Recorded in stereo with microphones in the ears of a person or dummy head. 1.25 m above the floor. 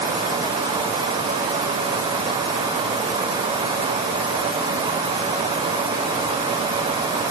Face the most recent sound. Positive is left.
No sound to turn to.